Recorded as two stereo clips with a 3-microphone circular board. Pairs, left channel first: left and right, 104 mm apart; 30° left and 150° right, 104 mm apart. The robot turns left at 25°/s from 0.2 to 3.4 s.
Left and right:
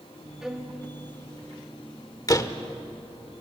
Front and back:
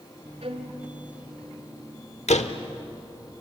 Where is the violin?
175° right, 2 m; by 0.8 s 175° left, 2 m.